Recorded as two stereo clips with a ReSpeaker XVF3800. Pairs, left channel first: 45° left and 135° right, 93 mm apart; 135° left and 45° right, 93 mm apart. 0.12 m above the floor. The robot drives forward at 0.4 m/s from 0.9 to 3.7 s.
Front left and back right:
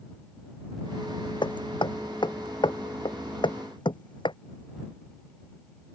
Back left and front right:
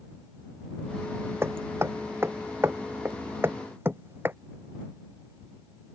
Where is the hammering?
20° left.